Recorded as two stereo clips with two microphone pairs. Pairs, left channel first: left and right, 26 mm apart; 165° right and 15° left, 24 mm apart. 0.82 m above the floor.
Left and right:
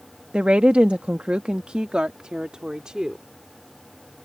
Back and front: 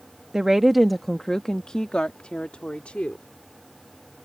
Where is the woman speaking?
50° right; by 3.2 s 145° right.